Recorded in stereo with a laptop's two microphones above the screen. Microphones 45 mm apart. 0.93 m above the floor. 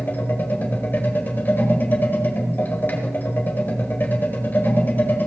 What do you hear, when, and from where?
0.0 s a machine running: 40° left (ahead or behind), 1.5 m